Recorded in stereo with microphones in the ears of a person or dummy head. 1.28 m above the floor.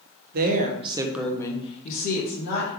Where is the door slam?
I don't hear a door slam.